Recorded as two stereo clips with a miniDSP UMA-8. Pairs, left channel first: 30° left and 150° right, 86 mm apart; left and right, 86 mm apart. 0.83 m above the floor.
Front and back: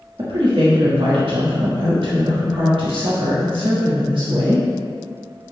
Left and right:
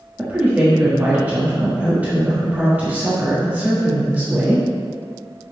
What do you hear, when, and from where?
0.2 s a woman speaking: 160° right, 1.3 m